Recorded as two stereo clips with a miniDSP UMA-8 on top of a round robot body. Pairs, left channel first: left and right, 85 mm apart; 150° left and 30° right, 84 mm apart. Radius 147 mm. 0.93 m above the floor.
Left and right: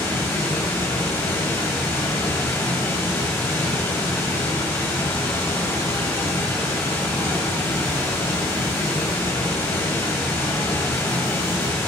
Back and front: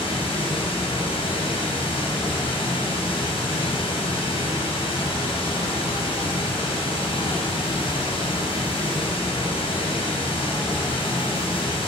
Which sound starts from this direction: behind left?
Running water, at 0.0 s.